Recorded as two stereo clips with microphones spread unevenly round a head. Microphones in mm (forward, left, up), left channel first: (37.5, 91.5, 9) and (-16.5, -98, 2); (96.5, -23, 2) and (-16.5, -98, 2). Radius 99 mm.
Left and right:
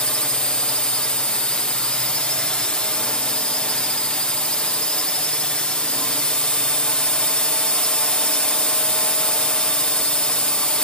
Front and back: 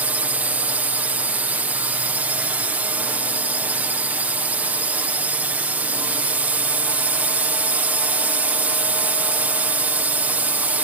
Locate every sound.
0.0 s a drone: 155° left